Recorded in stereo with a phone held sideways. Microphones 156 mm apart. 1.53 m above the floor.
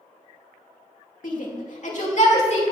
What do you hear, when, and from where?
1.2 s a shout: 65° left (ahead or behind), 2.5 m; by 2.6 s 50° left (ahead or behind), 3 m